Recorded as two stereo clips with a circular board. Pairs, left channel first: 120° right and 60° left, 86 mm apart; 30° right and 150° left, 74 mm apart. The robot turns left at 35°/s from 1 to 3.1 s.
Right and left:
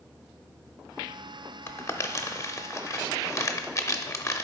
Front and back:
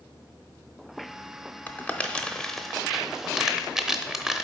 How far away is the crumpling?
About 0.6 m.